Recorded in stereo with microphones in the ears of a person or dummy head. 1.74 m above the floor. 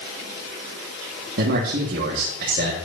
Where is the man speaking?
55° right (ahead or behind), 1.6 m.